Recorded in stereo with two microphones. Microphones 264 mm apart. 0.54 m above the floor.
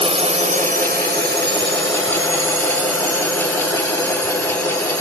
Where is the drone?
20° right (ahead or behind); by 5.0 s 75° right (ahead or behind).